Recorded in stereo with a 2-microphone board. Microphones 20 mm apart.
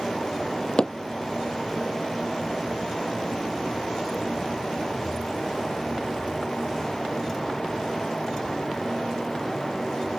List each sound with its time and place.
0.8 s hammering: 50° left (ahead or behind)